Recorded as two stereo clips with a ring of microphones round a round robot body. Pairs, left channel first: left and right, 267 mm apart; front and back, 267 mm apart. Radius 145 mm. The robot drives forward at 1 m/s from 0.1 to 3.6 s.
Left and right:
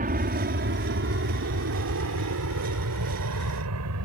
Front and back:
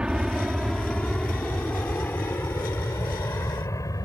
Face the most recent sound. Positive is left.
turn(degrees=-75)